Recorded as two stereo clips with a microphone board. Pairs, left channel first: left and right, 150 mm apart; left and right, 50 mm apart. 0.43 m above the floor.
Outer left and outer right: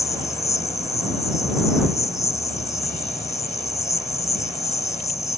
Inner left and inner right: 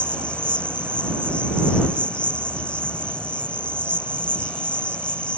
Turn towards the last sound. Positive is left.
turn(degrees=20)  # may be behind; listen again after turning